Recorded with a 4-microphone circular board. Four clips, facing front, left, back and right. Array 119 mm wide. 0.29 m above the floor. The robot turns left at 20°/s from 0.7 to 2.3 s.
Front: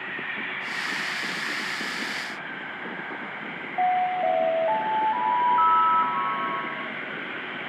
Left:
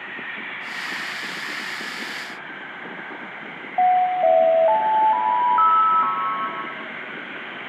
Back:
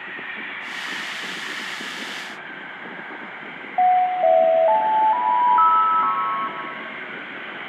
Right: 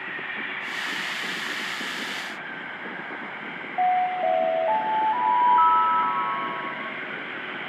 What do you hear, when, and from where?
3.8 s an alarm: 140° left, 1.4 m